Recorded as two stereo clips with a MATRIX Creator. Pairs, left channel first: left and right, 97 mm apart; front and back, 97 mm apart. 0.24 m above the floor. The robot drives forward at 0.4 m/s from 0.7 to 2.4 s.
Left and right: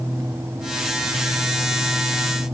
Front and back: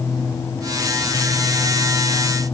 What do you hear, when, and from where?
Only background noise.